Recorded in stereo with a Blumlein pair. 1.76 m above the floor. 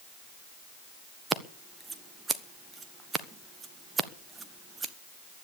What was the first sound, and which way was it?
Scissors, 15° right.